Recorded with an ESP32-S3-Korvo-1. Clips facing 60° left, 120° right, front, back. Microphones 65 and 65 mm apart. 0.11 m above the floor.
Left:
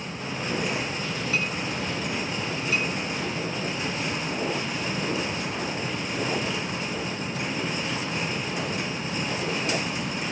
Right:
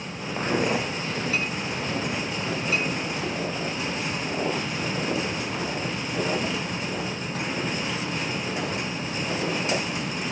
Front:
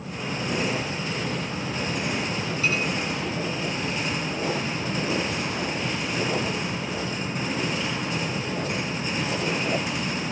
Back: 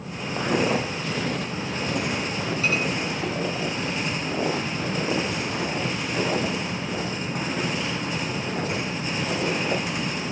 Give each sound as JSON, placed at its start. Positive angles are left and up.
{"t": 0.4, "sound": "footsteps", "azimuth_deg": -170, "distance_m": 1.3}